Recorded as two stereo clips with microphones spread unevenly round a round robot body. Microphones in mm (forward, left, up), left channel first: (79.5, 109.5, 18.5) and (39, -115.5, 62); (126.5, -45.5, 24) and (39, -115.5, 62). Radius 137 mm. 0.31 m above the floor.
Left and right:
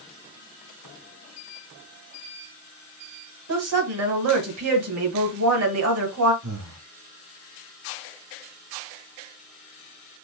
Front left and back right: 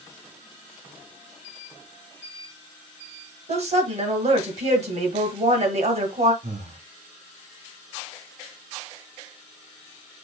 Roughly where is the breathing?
Behind right.